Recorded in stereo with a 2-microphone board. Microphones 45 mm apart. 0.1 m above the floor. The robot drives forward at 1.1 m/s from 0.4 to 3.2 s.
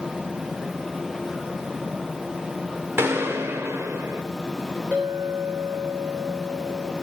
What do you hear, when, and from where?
3.0 s a gunshot: 75° right (ahead or behind), 1.5 m; by 4.2 s 80° right, 1.5 m
4.9 s a clink: 35° right (ahead or behind), 3.5 m